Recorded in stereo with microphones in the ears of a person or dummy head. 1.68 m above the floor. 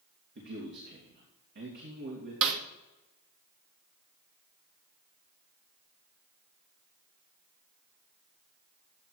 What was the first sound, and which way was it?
A man speaking, 60° right (ahead or behind).